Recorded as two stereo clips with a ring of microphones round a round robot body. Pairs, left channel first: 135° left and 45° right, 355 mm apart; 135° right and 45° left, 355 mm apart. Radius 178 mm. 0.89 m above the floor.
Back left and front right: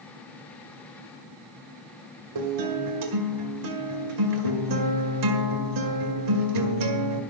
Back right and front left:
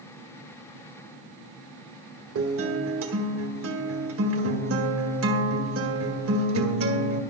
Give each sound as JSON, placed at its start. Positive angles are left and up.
{"t": 2.4, "sound": "a guitar", "azimuth_deg": -10, "distance_m": 1.8}